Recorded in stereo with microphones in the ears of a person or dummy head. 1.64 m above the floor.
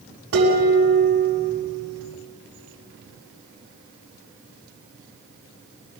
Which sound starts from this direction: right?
Dishes clattering, at 0.3 s.